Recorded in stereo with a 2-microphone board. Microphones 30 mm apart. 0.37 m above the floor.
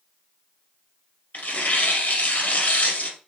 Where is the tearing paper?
55° left (ahead or behind), 2.5 m.